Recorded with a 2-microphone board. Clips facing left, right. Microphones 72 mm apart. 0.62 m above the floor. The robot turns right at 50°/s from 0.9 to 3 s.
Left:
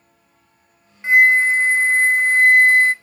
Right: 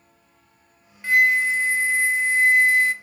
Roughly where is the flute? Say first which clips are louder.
Left 5 dB; ahead left.